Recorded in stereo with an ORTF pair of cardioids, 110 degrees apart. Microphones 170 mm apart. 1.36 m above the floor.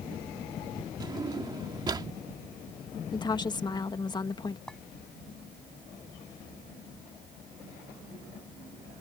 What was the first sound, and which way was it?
A drawer, 25° right.